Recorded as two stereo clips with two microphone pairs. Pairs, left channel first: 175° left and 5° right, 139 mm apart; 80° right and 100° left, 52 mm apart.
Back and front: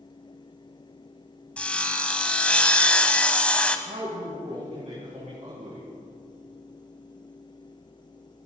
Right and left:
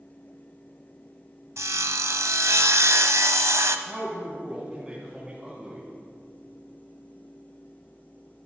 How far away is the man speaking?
About 3.5 m.